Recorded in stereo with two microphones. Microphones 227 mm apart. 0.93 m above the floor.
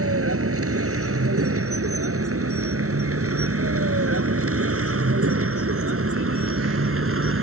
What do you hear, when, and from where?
0.0 s a vehicle: 85° right; by 7.4 s 70° right (ahead or behind)